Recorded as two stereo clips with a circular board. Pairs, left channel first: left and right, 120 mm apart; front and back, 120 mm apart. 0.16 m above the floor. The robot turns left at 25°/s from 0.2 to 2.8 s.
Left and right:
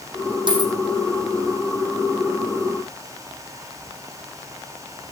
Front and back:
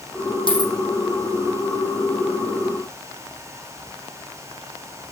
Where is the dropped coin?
45° right, 4 m; by 0.7 s 50° right, 4 m.